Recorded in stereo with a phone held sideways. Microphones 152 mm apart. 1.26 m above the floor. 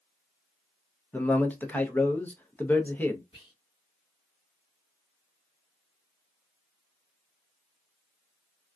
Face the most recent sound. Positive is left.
turn(degrees=40)  # may be behind; listen again after turning